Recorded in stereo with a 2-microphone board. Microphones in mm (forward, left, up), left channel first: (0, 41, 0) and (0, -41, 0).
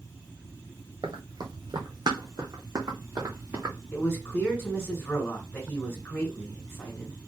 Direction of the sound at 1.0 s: 75° right (ahead or behind).